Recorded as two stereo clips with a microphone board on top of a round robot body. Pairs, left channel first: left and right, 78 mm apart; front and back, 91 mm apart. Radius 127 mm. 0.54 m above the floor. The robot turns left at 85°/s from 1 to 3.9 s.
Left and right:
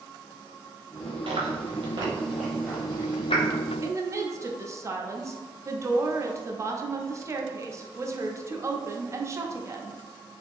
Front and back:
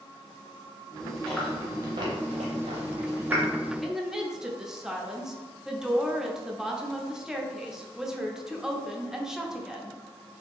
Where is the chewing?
70° right, 0.5 m; by 3.4 s 105° left, 0.5 m.